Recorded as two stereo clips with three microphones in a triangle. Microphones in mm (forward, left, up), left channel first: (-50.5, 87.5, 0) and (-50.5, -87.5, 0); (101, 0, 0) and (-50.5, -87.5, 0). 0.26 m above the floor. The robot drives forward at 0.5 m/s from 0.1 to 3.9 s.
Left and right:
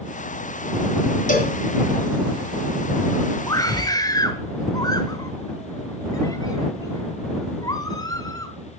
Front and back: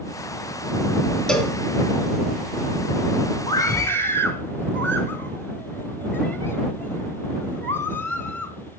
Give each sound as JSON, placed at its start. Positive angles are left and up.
{"t": 1.3, "sound": "a cowbell", "azimuth_deg": 115, "distance_m": 2.0}
{"t": 3.5, "sound": "a scream", "azimuth_deg": 55, "distance_m": 1.1}